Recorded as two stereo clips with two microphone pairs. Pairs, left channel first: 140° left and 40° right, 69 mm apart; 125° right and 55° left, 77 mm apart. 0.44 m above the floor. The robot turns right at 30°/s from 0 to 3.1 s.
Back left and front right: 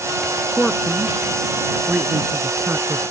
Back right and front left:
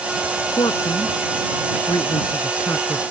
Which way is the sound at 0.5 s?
145° right.